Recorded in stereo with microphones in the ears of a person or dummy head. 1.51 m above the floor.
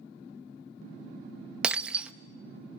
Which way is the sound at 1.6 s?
10° right (ahead or behind).